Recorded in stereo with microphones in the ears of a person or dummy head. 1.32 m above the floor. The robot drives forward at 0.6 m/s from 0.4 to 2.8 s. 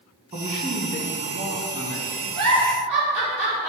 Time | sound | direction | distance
0.3 | a man speaking | 30° right (ahead or behind) | 1.7 m
2.4 | a giggle | 60° right (ahead or behind) | 3 m